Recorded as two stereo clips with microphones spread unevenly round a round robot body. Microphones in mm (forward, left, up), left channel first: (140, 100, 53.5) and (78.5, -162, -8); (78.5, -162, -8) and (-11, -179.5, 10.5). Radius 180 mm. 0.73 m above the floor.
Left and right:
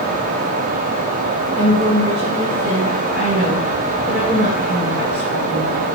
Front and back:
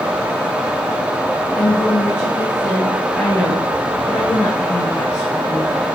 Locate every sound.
1.6 s a woman speaking: 55° right, 4.5 m